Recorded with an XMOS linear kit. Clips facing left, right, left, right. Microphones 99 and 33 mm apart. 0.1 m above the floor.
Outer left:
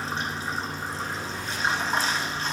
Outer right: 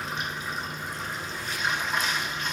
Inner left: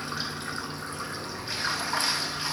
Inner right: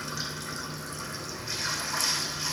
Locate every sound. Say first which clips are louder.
0.0 s running water: outer left 2 dB, inner left 2 dB; 35° left (ahead or behind), 0.8 m